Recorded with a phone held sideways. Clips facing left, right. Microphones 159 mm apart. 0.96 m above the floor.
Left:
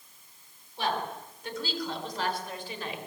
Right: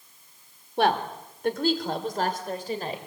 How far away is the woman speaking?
About 3 m.